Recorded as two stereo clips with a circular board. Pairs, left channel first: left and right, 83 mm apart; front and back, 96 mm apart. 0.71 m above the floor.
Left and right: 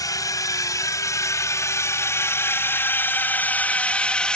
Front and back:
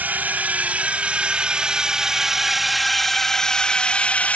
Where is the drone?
115° left; by 4.4 s 35° left.